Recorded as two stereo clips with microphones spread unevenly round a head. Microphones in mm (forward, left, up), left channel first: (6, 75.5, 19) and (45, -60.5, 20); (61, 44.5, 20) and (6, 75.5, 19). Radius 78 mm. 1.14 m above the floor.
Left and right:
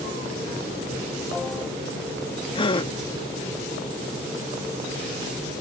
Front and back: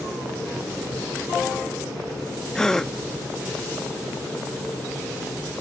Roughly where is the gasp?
Ahead left.